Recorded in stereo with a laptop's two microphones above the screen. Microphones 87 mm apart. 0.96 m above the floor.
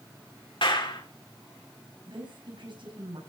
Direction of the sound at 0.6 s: 75° left (ahead or behind).